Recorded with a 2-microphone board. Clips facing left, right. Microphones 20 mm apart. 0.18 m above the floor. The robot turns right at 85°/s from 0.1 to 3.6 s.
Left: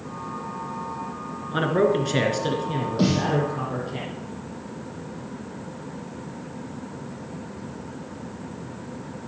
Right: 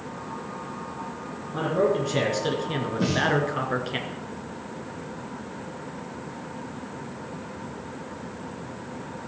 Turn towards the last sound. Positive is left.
turn(degrees=165)